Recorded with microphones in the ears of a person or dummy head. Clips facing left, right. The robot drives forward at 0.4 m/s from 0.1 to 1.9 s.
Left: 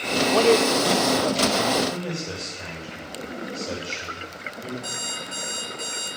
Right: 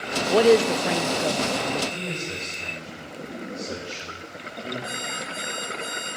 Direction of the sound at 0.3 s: 20° right (ahead or behind).